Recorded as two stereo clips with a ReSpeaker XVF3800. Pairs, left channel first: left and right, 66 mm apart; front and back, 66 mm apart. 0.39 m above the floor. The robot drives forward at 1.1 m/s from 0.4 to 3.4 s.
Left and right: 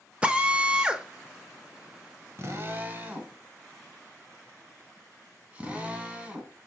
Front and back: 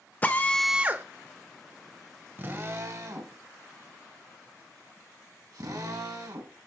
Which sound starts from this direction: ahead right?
A drill, at 0.2 s.